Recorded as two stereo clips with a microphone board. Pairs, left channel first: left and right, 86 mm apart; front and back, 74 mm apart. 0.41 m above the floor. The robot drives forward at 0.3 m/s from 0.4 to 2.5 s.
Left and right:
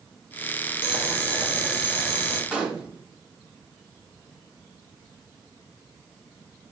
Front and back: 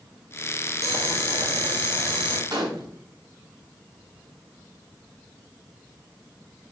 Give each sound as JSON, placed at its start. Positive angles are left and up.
{"t": 0.8, "sound": "boiling", "azimuth_deg": -165, "distance_m": 0.8}
{"t": 2.5, "sound": "a gunshot", "azimuth_deg": -170, "distance_m": 0.7}